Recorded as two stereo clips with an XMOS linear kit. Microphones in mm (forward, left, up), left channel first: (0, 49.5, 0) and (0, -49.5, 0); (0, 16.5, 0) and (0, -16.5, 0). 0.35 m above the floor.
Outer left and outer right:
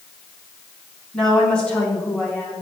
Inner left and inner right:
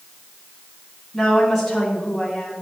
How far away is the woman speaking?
About 3 m.